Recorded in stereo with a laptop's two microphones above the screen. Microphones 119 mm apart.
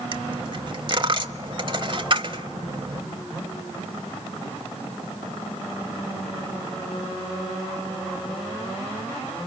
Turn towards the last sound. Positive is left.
turn(degrees=-40)  # may be behind; listen again after turning